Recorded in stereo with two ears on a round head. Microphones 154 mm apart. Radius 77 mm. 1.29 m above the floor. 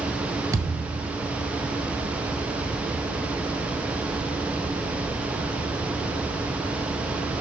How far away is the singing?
No singing in this recording.